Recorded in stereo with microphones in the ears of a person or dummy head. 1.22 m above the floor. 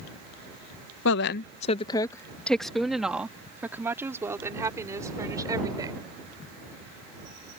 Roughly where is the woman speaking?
Left.